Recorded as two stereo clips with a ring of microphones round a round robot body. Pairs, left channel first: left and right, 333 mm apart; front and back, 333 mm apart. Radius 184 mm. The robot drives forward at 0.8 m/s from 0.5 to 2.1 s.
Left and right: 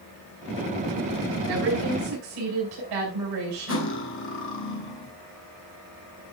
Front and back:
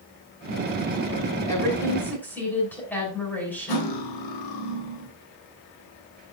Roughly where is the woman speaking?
Right.